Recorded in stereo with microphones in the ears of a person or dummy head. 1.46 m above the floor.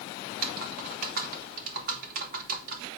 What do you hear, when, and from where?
0.3 s typing on a keyboard: 50° right (ahead or behind), 2.5 m